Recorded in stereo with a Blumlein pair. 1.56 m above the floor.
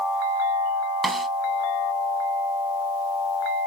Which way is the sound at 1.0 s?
10° right.